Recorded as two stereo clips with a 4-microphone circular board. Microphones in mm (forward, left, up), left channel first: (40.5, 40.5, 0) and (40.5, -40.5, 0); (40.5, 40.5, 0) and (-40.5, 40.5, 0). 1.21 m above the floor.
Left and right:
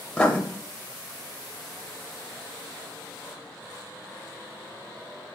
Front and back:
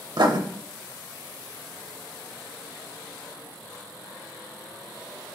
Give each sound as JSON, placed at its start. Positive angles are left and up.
{"t": 0.2, "sound": "writing", "azimuth_deg": 165, "distance_m": 0.6}